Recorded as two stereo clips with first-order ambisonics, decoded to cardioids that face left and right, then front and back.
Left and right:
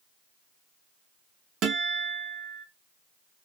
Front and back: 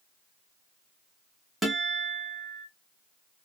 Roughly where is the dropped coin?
I don't hear a dropped coin.